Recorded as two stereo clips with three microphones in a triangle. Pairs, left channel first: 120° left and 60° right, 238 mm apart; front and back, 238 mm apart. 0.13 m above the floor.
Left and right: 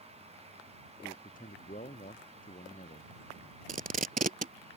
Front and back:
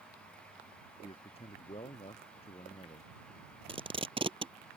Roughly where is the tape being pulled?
Behind right.